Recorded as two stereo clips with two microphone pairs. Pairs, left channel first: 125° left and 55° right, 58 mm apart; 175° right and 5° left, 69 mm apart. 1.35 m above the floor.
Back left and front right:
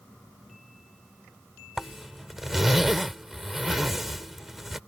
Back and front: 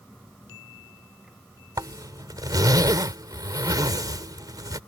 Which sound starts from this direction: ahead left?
A zipper, at 1.8 s.